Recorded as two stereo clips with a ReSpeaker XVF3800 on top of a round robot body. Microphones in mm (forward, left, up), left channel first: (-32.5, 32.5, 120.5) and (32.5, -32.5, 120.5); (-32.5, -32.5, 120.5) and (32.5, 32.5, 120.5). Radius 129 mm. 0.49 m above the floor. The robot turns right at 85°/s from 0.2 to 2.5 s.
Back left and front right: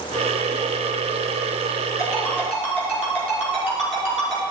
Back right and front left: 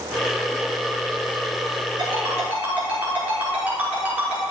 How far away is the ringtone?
About 5.5 m.